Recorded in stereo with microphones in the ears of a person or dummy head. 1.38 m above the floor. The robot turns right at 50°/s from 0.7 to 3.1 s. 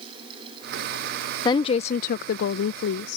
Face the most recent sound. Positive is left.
turn(degrees=105)